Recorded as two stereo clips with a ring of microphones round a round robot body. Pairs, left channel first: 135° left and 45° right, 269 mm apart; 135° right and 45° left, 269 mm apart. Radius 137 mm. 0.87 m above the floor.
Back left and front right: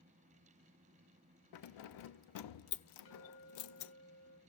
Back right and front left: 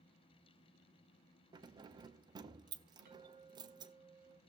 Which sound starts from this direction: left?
A clink, at 3.0 s.